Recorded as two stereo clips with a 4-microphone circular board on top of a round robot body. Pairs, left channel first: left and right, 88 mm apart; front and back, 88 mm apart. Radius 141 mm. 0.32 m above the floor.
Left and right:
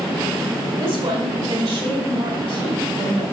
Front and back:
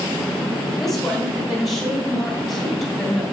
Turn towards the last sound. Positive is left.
turn(degrees=-90)